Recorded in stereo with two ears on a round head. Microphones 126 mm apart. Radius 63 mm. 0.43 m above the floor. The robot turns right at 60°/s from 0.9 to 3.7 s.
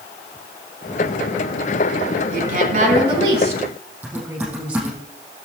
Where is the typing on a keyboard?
10° right (ahead or behind), 5 m.